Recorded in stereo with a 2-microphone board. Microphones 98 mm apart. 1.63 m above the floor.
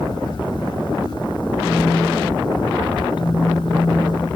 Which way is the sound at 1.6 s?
15° left (ahead or behind).